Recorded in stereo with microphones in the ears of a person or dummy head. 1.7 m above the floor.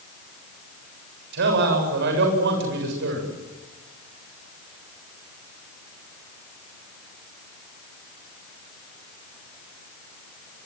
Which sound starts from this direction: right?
A man speaking, at 1.3 s.